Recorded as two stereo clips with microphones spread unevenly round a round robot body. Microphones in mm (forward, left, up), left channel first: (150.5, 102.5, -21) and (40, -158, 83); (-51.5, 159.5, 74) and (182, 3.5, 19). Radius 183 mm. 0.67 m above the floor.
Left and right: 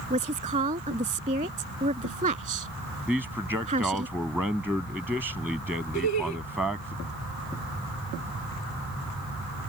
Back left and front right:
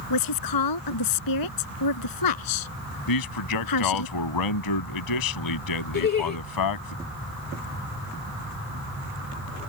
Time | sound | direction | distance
0.1 | a woman speaking | 175° left | ?
3.1 | a man speaking | 160° left | ?
5.9 | laughter | 90° left | ?